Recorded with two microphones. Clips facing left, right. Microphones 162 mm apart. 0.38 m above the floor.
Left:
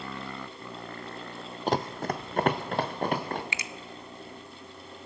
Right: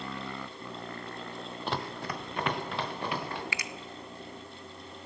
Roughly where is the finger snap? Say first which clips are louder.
Even; left.